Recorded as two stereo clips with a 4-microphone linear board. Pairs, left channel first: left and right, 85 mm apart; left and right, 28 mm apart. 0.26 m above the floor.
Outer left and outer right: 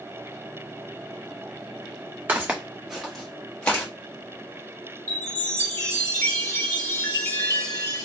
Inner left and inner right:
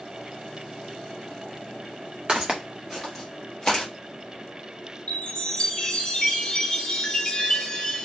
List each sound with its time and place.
2.3 s footsteps: 25° right (ahead or behind), 0.9 m; by 3.9 s 20° left (ahead or behind), 1.6 m
5.1 s a chime: 35° left (ahead or behind), 1.2 m